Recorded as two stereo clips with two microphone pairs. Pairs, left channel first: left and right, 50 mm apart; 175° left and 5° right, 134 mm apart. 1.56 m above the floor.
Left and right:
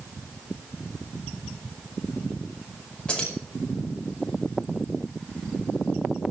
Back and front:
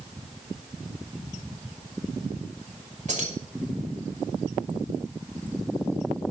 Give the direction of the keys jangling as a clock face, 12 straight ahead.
11 o'clock.